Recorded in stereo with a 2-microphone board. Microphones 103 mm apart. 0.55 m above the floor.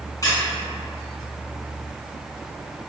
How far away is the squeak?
About 1.3 m.